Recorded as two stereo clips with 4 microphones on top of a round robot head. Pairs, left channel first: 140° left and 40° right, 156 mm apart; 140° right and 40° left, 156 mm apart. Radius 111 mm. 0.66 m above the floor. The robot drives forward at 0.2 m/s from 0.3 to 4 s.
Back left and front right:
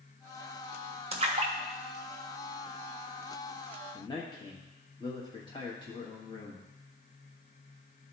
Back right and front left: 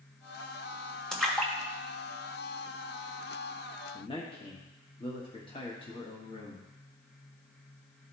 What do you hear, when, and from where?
1.1 s a splash: 55° right, 1.3 m; by 2.9 s 80° right, 1.2 m
3.9 s a man speaking: 175° right, 1.2 m